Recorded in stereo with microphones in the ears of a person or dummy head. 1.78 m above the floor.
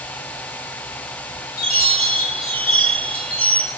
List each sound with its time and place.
1.6 s a chime: 55° left (ahead or behind), 1.3 m